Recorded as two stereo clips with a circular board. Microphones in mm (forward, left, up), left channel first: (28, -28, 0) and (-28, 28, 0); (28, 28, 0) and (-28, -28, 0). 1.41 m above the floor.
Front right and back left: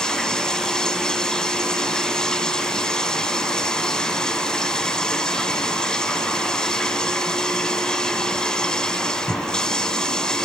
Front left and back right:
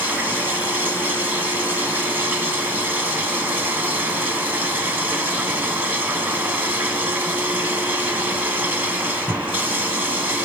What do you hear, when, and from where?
0.0 s running water: 110° right, 1.3 m